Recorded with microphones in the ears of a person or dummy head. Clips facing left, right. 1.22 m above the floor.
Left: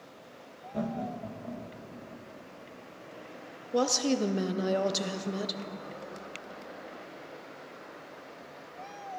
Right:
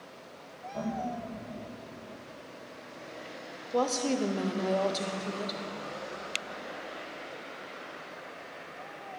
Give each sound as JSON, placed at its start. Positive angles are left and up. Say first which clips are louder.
{"t": 0.7, "sound": "laughter", "louder": "even", "side_deg": 25, "distance_m": 1.0}
{"t": 3.7, "sound": "a woman speaking", "louder": "left 1 dB", "side_deg": 15, "distance_m": 0.5}